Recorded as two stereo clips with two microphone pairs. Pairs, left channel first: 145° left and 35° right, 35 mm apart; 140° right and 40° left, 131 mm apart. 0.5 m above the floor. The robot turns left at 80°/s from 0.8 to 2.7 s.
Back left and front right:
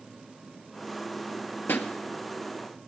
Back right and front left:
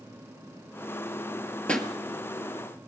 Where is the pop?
140° left, 1.6 m; by 1.9 s 125° left, 1.6 m.